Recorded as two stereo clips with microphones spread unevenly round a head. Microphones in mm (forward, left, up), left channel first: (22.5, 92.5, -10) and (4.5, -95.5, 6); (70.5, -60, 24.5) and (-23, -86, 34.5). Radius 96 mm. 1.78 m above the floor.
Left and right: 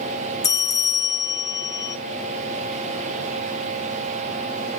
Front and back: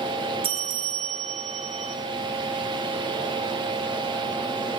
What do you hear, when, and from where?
0.4 s a bell: 155° left, 0.7 m